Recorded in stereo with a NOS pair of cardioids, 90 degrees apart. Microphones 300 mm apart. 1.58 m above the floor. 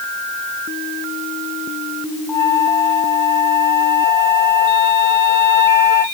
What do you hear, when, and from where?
2.3 s a flute: 10° left, 0.9 m